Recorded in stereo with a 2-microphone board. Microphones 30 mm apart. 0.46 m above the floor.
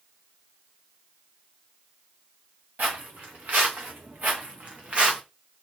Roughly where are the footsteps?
Right.